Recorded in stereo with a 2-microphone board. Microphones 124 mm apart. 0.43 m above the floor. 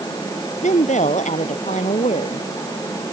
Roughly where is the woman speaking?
Left.